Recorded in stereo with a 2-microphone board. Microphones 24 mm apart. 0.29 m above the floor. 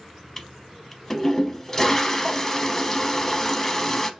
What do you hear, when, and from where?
0.4 s a toilet flushing: 20° left (ahead or behind), 0.6 m